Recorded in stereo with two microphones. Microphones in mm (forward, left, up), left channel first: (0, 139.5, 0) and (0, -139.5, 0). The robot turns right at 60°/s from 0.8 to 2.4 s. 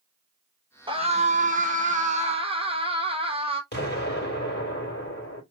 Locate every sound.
0.9 s a scream: 20° right (ahead or behind), 1.1 m
3.7 s an explosion: 40° left (ahead or behind), 2 m